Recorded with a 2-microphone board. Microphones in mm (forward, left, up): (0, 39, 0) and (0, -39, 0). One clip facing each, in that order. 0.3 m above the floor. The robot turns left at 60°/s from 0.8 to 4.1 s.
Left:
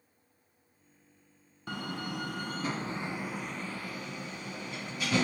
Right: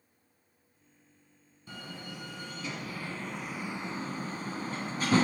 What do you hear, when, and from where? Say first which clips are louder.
1.7 s a door slam: left 7 dB; 65° left (ahead or behind), 1.7 m; by 5.2 s 35° right (ahead or behind), 1.7 m